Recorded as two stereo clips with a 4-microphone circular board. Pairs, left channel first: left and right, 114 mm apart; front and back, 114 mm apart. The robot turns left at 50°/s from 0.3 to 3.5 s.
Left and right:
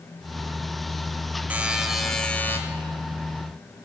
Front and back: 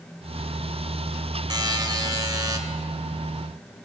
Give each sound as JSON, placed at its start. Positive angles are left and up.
{"t": 1.5, "sound": "a buzzer", "azimuth_deg": -160, "distance_m": 1.0}